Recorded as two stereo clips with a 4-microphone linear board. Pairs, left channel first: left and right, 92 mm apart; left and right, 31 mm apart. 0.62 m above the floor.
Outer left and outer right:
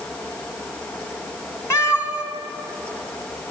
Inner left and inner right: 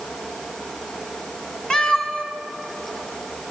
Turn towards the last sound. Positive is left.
turn(degrees=35)  # may be behind; listen again after turning